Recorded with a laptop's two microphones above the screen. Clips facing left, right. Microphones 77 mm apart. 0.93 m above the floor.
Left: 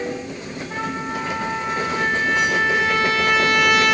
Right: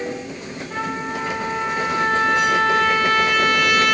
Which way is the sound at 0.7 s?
15° left (ahead or behind).